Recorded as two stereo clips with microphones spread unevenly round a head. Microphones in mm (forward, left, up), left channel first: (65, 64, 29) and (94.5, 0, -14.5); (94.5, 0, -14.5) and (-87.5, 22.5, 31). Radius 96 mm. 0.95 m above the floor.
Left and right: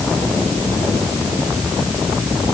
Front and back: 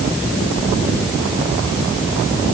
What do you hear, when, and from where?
Only background noise.